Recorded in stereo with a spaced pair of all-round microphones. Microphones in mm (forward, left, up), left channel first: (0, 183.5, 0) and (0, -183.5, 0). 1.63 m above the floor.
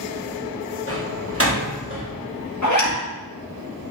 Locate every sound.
0.9 s a door slam: 35° right (ahead or behind), 2.0 m
2.6 s a zipper: 50° left (ahead or behind), 1.7 m